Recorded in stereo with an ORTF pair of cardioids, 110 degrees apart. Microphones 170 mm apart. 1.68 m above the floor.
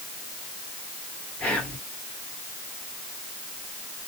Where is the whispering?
5° left, 1.5 m.